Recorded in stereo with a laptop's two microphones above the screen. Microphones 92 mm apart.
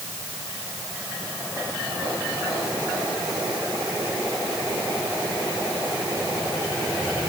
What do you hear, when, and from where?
Only background noise.